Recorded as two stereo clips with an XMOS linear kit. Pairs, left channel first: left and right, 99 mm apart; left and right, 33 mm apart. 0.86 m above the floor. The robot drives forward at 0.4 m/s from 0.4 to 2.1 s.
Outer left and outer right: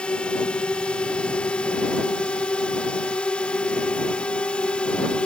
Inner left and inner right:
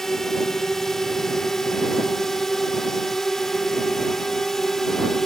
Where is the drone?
10° left (ahead or behind).